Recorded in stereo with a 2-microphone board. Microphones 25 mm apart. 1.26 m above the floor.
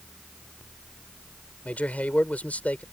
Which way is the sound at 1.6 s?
65° left (ahead or behind).